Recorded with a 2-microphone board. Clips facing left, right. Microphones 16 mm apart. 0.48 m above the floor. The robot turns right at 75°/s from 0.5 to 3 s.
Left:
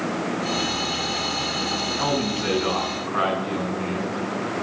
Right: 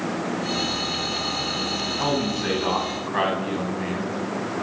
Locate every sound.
2.0 s a man speaking: 175° right, 4.5 m; by 4.6 s 95° right, 4.5 m